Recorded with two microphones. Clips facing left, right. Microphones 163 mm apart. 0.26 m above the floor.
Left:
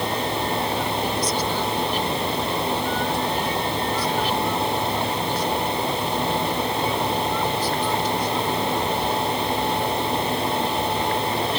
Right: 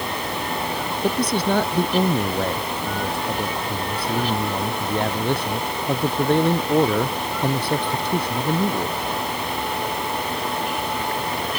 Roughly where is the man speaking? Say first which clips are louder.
Right 3 dB; right.